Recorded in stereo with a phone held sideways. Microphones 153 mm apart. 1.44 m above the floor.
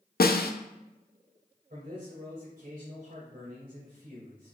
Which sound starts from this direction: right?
A man speaking, at 1.7 s.